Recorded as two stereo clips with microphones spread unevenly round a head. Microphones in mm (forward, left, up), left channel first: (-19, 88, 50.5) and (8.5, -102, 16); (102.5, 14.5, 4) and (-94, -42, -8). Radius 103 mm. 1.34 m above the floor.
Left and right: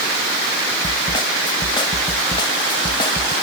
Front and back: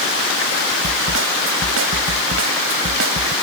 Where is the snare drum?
165° left.